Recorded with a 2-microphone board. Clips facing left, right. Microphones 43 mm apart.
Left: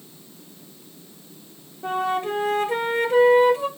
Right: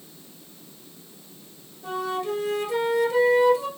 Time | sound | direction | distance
1.8 | a flute | 35° left (ahead or behind) | 1.3 m